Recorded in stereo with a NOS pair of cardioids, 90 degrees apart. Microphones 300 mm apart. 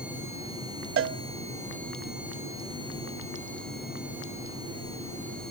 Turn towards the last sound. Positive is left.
turn(degrees=-45)